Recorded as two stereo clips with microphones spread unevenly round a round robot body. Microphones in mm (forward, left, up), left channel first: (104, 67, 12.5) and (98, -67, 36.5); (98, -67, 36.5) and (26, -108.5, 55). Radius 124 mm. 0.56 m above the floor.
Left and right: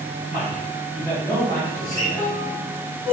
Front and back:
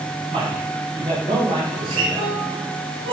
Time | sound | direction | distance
0.3 | a man speaking | 175° right | 3.5 m
1.7 | a guitar | 175° right | 2.5 m